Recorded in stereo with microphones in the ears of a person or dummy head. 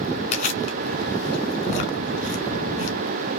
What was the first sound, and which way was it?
Chewing, 50° left (ahead or behind).